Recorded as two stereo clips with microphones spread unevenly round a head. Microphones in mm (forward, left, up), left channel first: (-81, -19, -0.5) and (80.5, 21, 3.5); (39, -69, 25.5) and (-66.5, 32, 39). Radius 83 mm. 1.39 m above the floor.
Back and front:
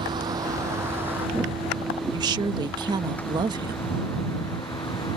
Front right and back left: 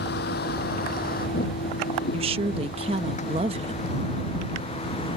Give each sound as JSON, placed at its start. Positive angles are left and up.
{"t": 0.0, "sound": "a vehicle", "azimuth_deg": -50}
{"t": 2.1, "sound": "a woman speaking", "azimuth_deg": 80}